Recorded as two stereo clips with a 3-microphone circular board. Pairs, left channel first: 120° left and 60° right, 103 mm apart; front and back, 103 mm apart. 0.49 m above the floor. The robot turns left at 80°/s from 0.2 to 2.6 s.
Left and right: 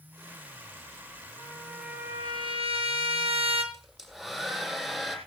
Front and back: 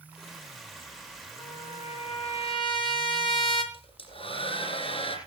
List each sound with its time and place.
1.4 s a trumpet: 60° left, 5.5 m; by 3.6 s 35° right, 5.5 m
3.7 s a hair dryer: 25° left, 8 m